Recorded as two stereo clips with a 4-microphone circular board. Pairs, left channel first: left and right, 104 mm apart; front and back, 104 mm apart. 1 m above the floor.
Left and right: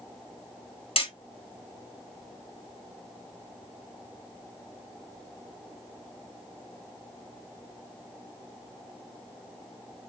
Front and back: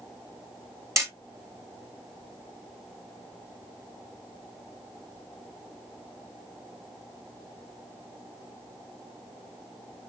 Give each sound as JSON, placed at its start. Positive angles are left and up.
{"t": 1.0, "sound": "hammering", "azimuth_deg": 120, "distance_m": 1.6}